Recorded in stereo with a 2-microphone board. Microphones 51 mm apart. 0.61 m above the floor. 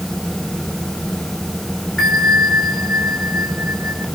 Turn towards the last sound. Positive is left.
turn(degrees=20)  # may be behind; listen again after turning